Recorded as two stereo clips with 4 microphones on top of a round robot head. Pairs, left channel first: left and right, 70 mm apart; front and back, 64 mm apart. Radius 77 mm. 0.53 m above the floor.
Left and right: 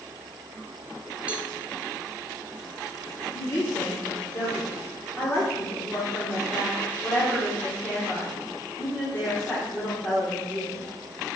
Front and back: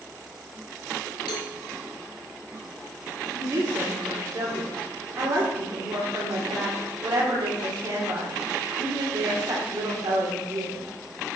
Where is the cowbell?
20° right, 1.3 m.